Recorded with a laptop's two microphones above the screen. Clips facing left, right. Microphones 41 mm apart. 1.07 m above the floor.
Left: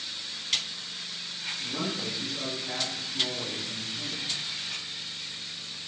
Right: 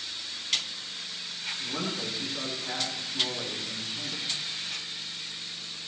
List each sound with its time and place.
1.6 s a man speaking: 25° right (ahead or behind), 9 m